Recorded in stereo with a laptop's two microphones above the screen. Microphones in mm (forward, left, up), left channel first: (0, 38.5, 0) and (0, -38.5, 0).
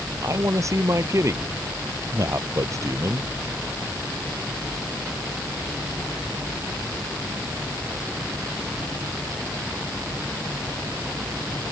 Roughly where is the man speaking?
Right.